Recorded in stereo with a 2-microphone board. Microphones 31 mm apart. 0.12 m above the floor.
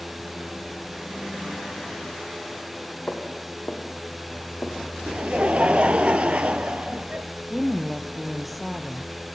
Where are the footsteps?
50° left (ahead or behind), 7 m; by 5.0 s 60° left (ahead or behind), 6 m.